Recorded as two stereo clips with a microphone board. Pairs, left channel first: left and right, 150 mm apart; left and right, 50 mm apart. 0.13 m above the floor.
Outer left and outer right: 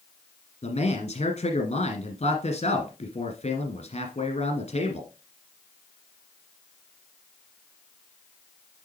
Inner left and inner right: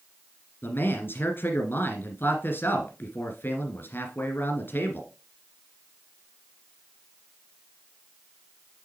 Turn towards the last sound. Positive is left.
turn(degrees=45)  # may be behind; listen again after turning